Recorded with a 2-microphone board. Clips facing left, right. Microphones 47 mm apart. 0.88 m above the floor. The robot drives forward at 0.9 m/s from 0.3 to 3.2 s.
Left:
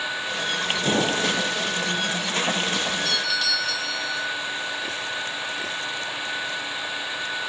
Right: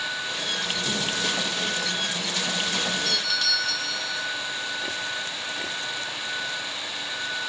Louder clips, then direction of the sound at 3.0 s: Left 2 dB; centre (ahead or behind).